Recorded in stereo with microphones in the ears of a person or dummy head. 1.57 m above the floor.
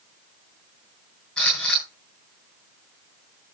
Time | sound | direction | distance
1.4 | a camera shutter | 5° left (ahead or behind) | 7.5 m